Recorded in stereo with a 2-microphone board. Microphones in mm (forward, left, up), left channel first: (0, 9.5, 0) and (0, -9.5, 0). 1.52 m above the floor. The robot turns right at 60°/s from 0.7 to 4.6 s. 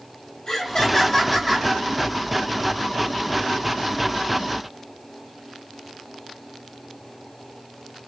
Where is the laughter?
130° left, 4.5 m; by 1.7 s 170° right, 4.5 m.